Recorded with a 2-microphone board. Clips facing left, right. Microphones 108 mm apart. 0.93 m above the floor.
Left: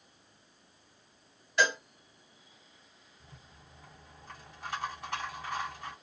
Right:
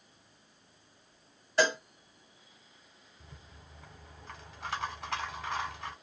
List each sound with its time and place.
1.6 s a cowbell: 35° right (ahead or behind), 2 m
3.2 s a rattle: 75° right (ahead or behind), 1.4 m